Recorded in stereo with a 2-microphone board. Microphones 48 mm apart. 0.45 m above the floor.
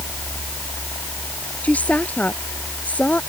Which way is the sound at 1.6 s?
30° left (ahead or behind).